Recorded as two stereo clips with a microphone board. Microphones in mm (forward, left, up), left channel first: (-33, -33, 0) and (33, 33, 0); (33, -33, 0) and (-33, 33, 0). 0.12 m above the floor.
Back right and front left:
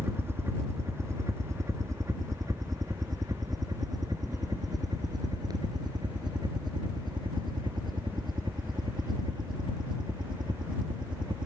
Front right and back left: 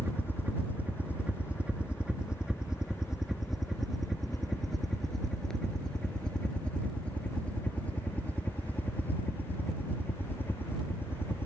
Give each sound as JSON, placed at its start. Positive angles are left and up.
{"t": 0.0, "sound": "a helicopter", "azimuth_deg": 85}